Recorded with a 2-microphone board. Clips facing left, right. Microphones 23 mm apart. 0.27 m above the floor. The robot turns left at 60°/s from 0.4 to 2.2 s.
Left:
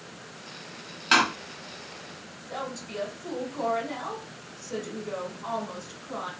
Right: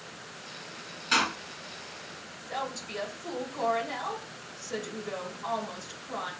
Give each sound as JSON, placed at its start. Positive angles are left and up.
{"t": 1.1, "sound": "a door slam", "side_deg": 50, "distance_m": 1.0}
{"t": 2.5, "sound": "a woman speaking", "side_deg": -10, "distance_m": 1.4}